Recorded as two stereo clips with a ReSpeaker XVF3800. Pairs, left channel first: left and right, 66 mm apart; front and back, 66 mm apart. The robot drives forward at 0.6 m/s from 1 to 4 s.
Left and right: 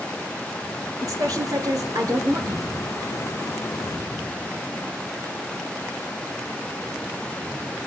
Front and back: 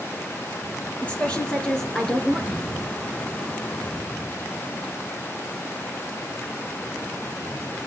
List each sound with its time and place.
1.0 s a woman speaking: 70° right, 3 m; by 2.8 s 95° right, 2.5 m